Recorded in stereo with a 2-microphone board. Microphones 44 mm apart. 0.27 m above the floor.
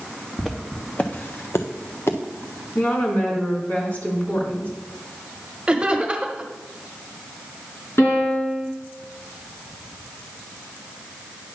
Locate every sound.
0.4 s footsteps: centre (ahead or behind), 1.5 m; by 2.2 s 75° left (ahead or behind), 1.6 m
2.8 s a woman speaking: 40° left (ahead or behind), 3 m
5.7 s laughter: 25° right (ahead or behind), 1.2 m
8.0 s a piano: 70° left (ahead or behind), 4 m